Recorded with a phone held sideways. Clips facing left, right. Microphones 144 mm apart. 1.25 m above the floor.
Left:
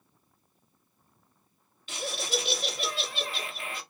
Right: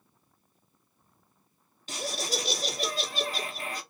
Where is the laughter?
40° right (ahead or behind), 0.8 m.